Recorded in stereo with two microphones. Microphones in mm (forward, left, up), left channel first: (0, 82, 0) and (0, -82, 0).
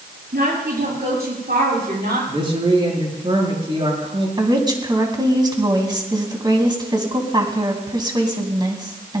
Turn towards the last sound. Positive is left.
turn(degrees=-25)  # may be behind; listen again after turning